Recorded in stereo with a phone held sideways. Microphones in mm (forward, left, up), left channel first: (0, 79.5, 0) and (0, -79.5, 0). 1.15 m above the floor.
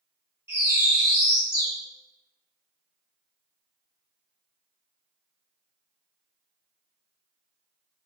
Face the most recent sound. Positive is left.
turn(degrees=-15)  # may be behind; listen again after turning